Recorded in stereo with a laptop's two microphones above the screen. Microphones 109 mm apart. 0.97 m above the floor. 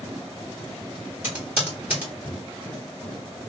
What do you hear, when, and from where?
1.2 s typing on a keyboard: 15° right (ahead or behind), 1.6 m